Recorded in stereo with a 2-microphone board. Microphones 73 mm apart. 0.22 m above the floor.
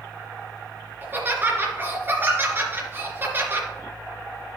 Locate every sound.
1.0 s laughter: 30° right (ahead or behind), 3 m